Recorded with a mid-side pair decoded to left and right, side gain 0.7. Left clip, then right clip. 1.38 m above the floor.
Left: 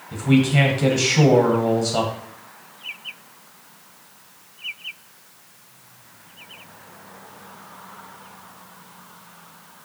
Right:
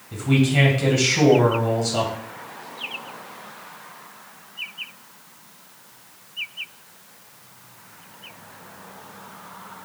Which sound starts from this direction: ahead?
A man speaking, at 0.1 s.